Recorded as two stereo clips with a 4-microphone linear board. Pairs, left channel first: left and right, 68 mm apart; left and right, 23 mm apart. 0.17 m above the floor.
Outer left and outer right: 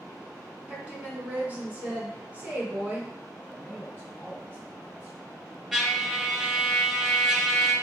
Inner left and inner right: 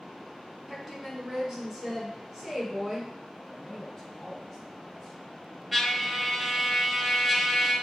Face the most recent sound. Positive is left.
turn(degrees=0)  # may be behind; listen again after turning